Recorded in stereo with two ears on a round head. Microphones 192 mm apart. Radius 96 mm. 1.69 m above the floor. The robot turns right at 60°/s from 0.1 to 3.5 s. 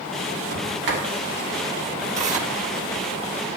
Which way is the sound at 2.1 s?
35° right (ahead or behind).